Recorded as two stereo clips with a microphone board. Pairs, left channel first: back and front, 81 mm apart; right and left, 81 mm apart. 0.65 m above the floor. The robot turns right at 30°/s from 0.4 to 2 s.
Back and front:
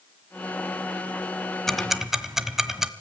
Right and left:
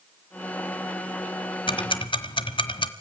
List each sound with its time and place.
1.7 s ticking: 95° right, 1.2 m; by 2.9 s 85° right, 1.2 m